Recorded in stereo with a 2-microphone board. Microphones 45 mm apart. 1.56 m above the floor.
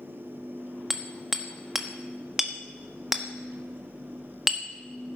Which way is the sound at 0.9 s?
10° right (ahead or behind).